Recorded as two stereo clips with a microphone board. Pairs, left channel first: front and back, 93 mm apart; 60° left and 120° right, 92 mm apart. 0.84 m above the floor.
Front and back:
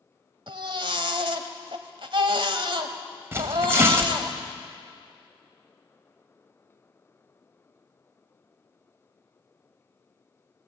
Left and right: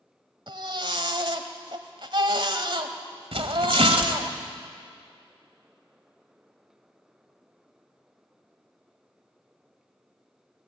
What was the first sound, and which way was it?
A baby crying, 150° right.